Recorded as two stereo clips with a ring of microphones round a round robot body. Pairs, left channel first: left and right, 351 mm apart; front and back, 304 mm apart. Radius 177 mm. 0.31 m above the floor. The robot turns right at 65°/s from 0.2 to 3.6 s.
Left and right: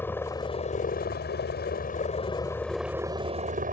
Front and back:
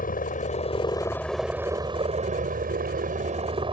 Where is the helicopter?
15° left; by 3.7 s 125° right.